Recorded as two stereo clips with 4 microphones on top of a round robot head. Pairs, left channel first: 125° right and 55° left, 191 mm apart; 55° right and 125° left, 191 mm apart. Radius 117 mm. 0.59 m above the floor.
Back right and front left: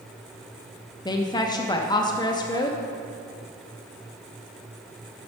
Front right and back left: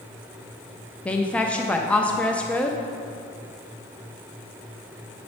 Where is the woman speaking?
130° right, 0.6 m.